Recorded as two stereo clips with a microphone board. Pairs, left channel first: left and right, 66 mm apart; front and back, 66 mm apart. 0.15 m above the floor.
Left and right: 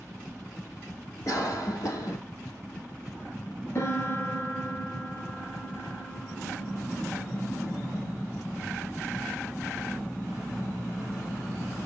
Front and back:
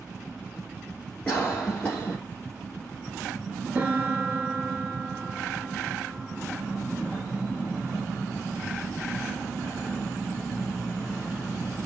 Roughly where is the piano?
Behind left.